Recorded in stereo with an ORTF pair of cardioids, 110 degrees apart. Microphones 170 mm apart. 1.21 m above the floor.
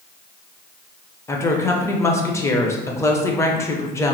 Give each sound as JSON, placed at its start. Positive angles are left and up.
{"t": 1.3, "sound": "a woman speaking", "azimuth_deg": 15, "distance_m": 0.5}